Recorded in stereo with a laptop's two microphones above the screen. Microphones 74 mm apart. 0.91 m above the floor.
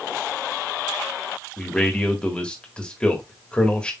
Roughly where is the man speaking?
Centre.